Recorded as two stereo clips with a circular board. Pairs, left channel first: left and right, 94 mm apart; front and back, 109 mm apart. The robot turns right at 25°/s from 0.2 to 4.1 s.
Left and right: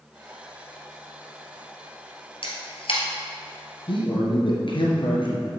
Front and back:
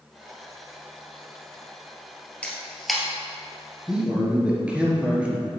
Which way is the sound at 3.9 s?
95° left.